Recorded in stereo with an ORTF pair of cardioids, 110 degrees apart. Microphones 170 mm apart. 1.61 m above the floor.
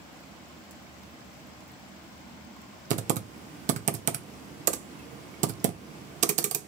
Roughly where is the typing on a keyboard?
Ahead right.